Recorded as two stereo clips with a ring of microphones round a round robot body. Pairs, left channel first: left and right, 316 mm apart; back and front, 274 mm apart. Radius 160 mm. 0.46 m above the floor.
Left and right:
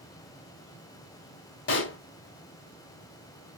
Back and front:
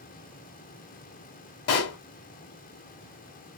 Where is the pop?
145° left, 1.0 m.